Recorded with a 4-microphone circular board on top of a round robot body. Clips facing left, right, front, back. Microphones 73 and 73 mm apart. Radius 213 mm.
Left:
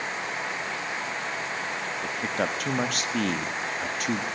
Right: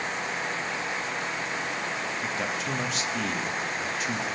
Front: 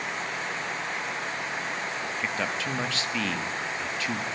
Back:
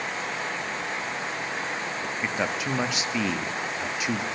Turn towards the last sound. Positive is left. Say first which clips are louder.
# left 2 dB, back 3 dB
turn(degrees=105)